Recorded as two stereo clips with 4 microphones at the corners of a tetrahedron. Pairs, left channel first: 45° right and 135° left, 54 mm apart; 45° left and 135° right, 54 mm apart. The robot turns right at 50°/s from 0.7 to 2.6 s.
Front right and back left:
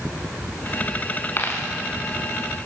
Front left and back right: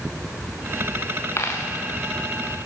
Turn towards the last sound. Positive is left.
turn(degrees=65)